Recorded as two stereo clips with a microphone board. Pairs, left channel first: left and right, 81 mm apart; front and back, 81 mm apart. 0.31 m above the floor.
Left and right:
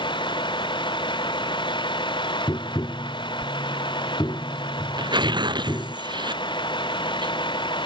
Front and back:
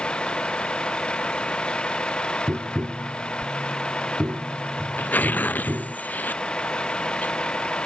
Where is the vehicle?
80° left.